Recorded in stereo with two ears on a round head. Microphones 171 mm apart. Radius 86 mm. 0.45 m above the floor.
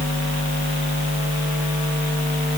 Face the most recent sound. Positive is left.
No sound to turn to.